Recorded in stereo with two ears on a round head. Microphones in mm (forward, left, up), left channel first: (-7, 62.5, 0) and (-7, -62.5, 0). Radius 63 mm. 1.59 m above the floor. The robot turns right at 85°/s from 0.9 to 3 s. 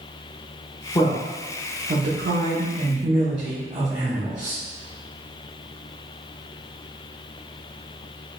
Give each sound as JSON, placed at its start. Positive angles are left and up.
{"t": 0.9, "sound": "a man speaking", "azimuth_deg": 155, "distance_m": 1.0}